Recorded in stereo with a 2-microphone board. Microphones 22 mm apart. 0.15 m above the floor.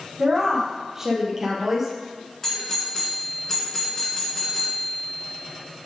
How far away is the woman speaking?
About 4.5 m.